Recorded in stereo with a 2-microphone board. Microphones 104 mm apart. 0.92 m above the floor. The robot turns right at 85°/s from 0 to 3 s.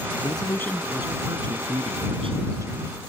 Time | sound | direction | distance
0.2 | a man speaking | 120° left | ?